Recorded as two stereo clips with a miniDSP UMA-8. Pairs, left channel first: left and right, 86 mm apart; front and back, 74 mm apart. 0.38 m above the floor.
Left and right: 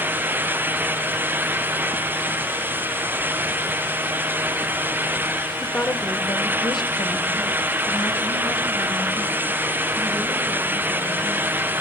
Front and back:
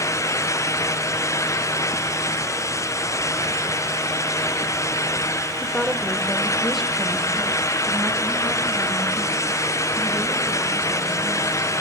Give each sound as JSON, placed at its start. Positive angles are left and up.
{"t": 5.6, "sound": "a woman speaking", "azimuth_deg": 20, "distance_m": 0.9}